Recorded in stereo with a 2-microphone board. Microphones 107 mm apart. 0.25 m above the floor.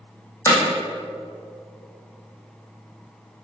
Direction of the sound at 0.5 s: 25° left (ahead or behind).